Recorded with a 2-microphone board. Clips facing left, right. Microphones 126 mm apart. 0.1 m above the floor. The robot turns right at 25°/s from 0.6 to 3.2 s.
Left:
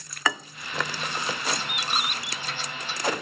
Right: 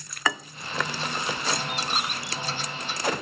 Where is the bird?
35° right (ahead or behind); by 2.5 s 30° right (ahead or behind).